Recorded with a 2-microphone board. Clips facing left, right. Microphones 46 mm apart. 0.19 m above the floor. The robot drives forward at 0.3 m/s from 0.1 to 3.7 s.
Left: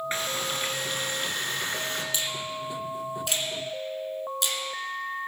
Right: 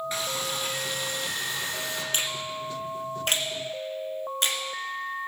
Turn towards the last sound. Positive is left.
turn(degrees=-40)  # may be behind; listen again after turning